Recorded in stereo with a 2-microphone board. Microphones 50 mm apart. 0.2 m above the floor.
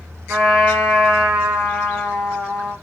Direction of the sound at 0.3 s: 20° right (ahead or behind).